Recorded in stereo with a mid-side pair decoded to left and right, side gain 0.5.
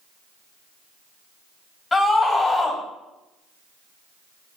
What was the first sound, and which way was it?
A scream, 25° left.